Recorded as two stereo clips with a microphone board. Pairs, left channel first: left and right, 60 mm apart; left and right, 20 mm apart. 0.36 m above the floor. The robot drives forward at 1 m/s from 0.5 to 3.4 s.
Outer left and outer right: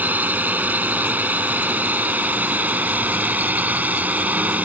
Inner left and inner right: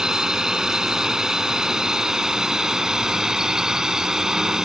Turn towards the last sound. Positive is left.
turn(degrees=-30)  # may be behind; listen again after turning